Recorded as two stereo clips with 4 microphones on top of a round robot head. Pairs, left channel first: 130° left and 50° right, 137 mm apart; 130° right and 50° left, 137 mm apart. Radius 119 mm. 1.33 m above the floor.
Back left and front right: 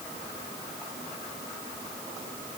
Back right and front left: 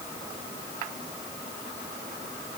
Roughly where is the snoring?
I don't hear snoring.